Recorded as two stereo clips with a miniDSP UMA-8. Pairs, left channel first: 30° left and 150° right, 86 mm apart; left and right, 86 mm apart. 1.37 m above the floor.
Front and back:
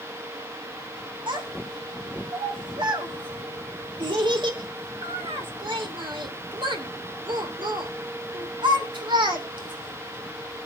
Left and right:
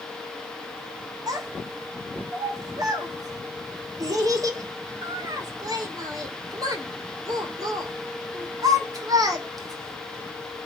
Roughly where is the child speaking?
Behind right.